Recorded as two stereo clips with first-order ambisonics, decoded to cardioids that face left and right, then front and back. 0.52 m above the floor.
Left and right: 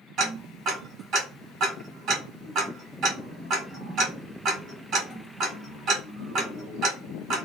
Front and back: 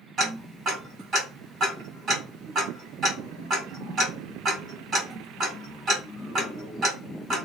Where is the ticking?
130° right, 1.7 m.